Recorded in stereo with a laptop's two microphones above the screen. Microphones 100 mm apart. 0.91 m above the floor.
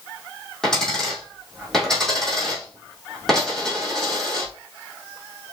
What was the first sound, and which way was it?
A dropped coin, 5° left (ahead or behind).